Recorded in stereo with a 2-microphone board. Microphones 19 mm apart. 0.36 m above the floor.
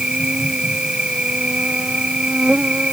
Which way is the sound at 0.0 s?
60° right (ahead or behind).